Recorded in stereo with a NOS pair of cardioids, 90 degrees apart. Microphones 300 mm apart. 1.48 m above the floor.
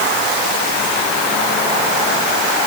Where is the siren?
No siren in this recording.